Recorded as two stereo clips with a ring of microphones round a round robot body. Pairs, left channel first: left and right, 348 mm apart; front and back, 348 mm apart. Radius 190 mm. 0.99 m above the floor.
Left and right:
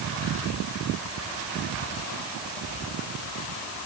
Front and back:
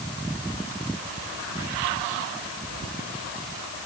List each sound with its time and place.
Only background noise.